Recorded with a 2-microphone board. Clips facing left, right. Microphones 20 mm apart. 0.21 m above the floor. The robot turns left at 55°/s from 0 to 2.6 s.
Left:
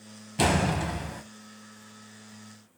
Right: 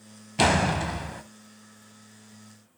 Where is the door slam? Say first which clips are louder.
Right 3 dB; 25° right (ahead or behind), 0.8 m; by 1.2 s 10° right (ahead or behind), 0.8 m.